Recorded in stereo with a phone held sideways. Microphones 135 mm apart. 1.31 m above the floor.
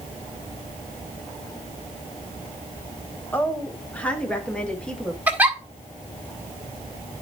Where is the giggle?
10° right (ahead or behind), 1.4 m.